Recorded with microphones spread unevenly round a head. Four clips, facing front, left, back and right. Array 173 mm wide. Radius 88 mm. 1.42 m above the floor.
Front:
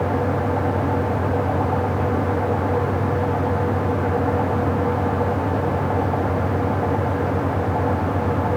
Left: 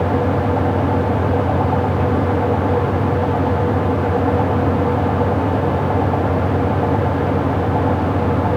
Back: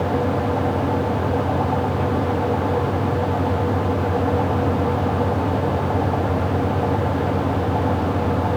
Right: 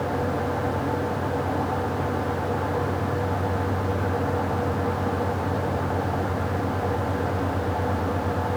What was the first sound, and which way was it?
Only background noise.